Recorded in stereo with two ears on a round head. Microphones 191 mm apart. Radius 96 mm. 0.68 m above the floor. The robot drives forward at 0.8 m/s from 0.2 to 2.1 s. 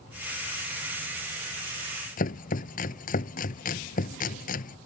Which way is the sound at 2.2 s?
40° left (ahead or behind).